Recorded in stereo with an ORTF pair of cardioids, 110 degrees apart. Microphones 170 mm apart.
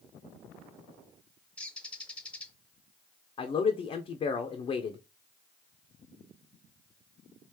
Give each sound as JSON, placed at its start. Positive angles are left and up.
{"t": 1.6, "sound": "a bird", "azimuth_deg": 5, "distance_m": 0.6}
{"t": 3.4, "sound": "a man speaking", "azimuth_deg": 35, "distance_m": 0.5}